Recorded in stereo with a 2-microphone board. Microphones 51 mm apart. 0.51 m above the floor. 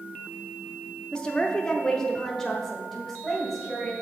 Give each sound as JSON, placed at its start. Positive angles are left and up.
{"t": 1.1, "sound": "a woman speaking", "side_deg": 15, "distance_m": 0.7}